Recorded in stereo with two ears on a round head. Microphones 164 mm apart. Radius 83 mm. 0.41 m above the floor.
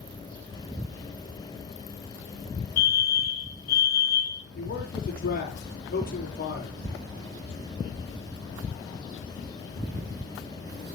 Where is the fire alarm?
50° left (ahead or behind), 5.5 m.